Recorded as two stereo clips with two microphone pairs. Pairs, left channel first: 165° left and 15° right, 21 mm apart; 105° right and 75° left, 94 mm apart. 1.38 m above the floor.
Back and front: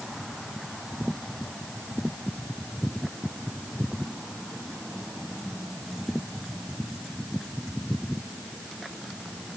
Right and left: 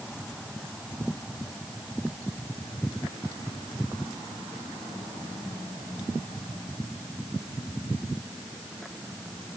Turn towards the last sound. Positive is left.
No sound to turn to.